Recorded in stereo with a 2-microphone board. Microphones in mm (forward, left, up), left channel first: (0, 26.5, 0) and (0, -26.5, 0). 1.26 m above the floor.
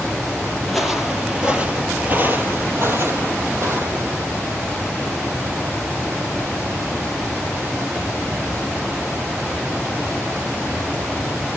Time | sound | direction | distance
0.6 | footsteps | 5° left (ahead or behind) | 2 m